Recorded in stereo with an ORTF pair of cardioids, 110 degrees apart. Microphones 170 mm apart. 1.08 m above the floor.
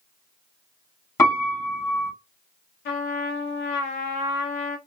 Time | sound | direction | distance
1.2 | a piano | 20° left | 1.4 m
2.9 | a trumpet | 70° left | 0.7 m